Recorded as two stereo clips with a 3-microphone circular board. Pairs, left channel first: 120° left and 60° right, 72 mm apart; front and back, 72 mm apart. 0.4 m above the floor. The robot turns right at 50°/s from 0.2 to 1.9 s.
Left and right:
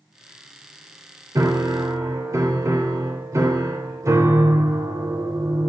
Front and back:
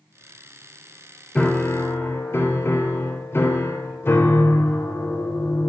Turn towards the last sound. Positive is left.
turn(degrees=-45)